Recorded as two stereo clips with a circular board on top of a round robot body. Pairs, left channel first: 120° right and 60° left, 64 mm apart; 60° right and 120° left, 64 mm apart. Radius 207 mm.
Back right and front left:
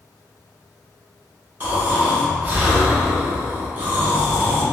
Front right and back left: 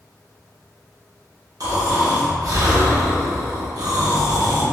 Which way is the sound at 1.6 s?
120° left.